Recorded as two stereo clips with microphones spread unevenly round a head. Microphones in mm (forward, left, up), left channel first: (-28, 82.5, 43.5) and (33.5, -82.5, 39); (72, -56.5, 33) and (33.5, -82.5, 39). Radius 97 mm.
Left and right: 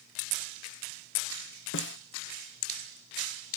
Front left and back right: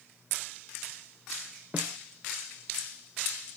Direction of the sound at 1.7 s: 140° left.